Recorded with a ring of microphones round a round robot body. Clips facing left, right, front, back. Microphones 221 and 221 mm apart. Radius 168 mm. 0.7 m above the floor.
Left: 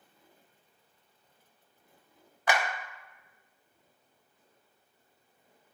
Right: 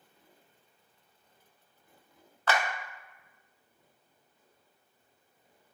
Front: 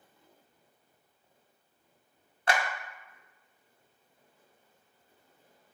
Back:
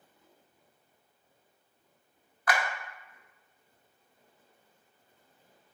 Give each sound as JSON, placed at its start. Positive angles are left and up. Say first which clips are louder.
{"t": 2.5, "sound": "a clap", "louder": "even, front 1 dB", "azimuth_deg": 25, "distance_m": 0.7}